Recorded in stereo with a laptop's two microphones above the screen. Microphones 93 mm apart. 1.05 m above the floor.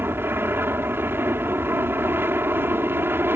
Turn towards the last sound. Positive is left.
turn(degrees=-25)  # may be behind; listen again after turning